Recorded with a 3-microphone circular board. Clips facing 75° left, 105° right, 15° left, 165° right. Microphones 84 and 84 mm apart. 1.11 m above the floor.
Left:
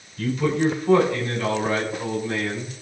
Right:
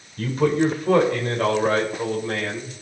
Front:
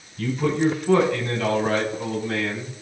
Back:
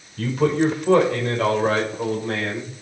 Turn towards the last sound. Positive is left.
turn(degrees=-135)